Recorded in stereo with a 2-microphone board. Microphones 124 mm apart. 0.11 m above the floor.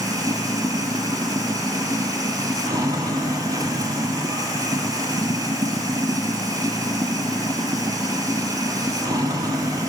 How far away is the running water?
About 2.0 m.